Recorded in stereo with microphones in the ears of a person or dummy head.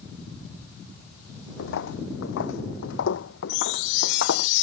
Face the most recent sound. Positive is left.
turn(degrees=70)  # may be behind; listen again after turning